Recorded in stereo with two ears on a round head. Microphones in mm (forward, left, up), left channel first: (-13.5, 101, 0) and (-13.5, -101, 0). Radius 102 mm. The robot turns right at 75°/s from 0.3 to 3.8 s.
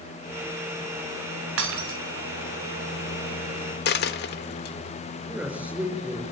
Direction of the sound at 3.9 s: 50° left (ahead or behind).